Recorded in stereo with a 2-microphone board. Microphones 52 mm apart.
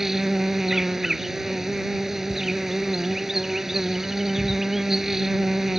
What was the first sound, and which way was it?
An insect, 10° right (ahead or behind).